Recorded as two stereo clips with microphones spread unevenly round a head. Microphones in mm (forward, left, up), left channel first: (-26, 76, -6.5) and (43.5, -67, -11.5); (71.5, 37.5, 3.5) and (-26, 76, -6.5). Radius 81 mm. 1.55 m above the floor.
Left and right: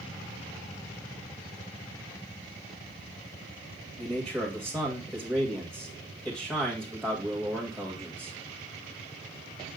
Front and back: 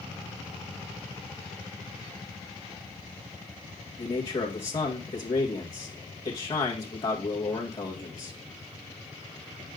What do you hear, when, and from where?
4.0 s a man speaking: 25° left, 2 m